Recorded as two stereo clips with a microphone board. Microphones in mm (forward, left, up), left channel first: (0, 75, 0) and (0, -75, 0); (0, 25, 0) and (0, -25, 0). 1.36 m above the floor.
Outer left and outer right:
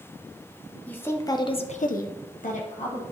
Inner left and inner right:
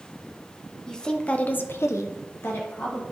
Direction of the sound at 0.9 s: 15° left (ahead or behind).